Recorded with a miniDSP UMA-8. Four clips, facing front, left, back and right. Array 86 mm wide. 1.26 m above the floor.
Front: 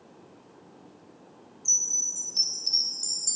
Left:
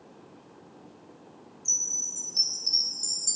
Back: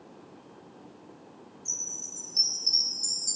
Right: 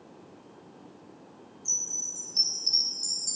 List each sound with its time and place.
1.6 s a chime: 5° right, 1.9 m